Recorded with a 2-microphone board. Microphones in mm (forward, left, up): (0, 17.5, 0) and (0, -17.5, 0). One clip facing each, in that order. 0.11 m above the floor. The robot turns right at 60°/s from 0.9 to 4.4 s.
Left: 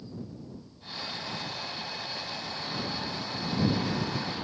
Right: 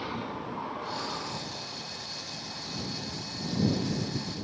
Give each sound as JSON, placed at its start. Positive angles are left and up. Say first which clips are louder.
{"t": 0.0, "sound": "a vehicle", "louder": "right 8 dB", "side_deg": -85}